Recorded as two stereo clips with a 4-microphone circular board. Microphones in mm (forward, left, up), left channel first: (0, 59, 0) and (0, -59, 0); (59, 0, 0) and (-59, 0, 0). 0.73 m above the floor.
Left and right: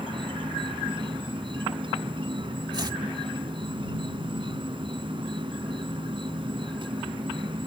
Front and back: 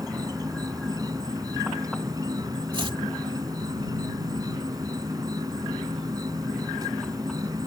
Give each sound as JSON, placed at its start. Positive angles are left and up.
{"t": 0.0, "sound": "an insect", "azimuth_deg": -130}
{"t": 2.7, "sound": "chopping", "azimuth_deg": -140}